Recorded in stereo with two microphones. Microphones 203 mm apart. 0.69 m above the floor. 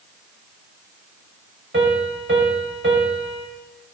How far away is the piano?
About 2 m.